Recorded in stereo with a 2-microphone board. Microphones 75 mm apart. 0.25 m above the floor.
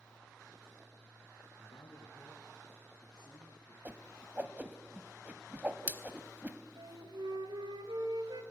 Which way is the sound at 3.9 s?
25° right (ahead or behind).